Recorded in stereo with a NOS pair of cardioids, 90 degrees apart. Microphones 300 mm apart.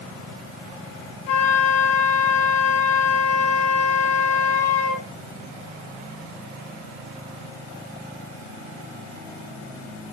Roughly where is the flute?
Ahead left.